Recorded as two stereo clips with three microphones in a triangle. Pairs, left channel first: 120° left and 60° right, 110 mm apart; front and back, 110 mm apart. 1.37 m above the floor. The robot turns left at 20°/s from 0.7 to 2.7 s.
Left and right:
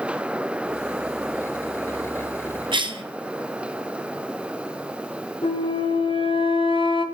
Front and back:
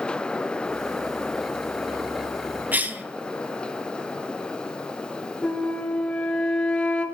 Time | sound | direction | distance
2.7 | a cough | 105° right | 0.8 m
5.4 | a flute | 80° left | 0.7 m